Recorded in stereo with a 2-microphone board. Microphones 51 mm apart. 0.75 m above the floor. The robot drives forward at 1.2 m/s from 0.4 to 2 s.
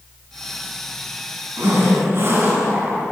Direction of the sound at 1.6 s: 45° right (ahead or behind).